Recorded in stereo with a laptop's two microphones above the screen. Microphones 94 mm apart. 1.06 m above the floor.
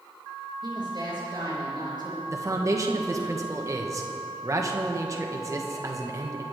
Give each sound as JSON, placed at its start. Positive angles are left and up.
{"t": 0.6, "sound": "a woman speaking", "side_deg": -50, "distance_m": 4.5}
{"t": 2.3, "sound": "a man speaking", "side_deg": -35, "distance_m": 1.1}